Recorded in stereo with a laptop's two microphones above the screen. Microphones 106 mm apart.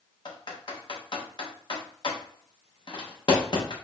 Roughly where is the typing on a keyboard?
Left.